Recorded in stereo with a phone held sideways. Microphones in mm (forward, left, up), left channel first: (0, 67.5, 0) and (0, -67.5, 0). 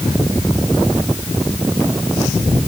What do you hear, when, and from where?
Only background noise.